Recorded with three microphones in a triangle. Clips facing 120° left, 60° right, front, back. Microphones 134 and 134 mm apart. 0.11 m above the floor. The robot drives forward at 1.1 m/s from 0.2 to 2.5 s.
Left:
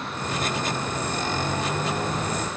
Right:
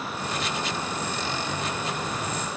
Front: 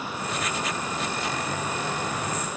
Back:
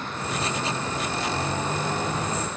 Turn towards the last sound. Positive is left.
No sound to turn to.